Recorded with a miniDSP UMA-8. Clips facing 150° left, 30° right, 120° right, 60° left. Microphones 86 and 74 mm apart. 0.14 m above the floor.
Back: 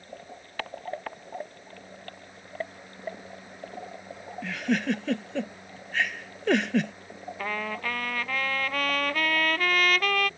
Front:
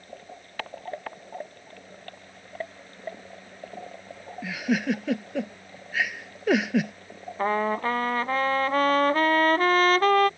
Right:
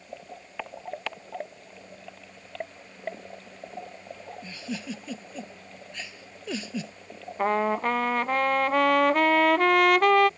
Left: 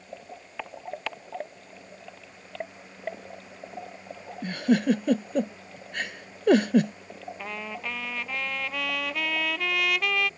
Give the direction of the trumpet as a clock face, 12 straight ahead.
3 o'clock.